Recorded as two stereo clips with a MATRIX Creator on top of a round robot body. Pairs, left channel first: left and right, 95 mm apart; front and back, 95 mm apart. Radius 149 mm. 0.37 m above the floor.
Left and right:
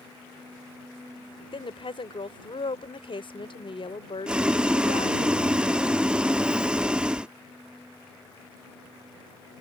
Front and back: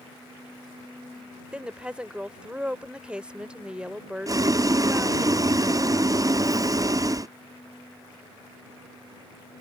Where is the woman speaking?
105° left.